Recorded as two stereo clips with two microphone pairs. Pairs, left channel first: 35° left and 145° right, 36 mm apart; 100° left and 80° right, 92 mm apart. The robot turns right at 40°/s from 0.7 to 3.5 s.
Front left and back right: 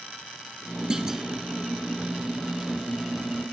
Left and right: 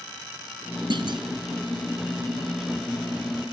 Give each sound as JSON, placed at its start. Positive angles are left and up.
{"t": 0.9, "sound": "a clunk", "azimuth_deg": -80, "distance_m": 1.0}